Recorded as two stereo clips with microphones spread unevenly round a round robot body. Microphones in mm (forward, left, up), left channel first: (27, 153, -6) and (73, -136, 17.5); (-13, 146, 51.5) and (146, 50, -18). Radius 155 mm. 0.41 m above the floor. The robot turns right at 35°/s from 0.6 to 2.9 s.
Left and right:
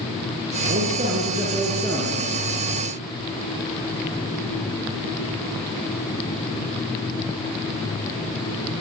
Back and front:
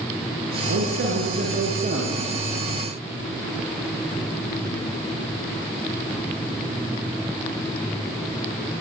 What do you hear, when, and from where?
0.7 s a man speaking: 25° right, 6 m; by 2.4 s 35° left, 6 m